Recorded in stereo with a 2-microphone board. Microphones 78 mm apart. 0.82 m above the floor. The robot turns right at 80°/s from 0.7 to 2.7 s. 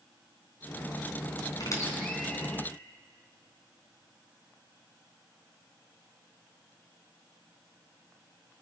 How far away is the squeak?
About 4.5 m.